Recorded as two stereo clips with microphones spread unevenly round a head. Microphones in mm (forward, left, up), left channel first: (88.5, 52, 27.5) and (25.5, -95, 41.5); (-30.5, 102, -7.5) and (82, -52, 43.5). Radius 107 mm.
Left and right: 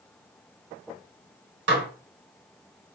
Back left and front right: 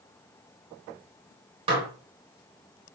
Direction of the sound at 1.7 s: 120° right.